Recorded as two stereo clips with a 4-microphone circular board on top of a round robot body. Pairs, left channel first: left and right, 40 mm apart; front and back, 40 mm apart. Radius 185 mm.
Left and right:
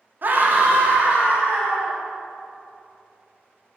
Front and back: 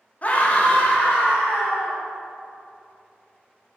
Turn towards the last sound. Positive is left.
turn(degrees=-45)